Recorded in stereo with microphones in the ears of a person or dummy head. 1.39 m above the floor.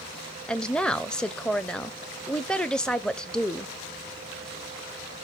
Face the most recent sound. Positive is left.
turn(degrees=5)  # may be behind; listen again after turning